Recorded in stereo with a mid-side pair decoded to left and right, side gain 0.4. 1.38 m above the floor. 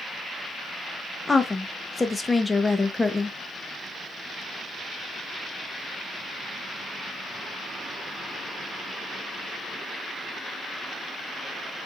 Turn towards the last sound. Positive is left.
turn(degrees=20)